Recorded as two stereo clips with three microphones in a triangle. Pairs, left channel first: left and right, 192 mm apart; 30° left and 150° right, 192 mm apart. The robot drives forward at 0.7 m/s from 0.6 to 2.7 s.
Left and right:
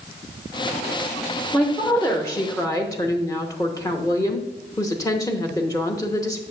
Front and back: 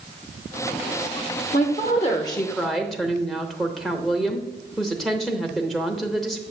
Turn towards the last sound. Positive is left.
turn(degrees=115)